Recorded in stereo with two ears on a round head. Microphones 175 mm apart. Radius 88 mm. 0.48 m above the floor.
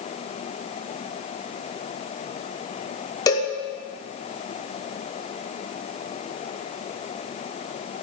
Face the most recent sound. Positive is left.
turn(degrees=20)  # may be behind; listen again after turning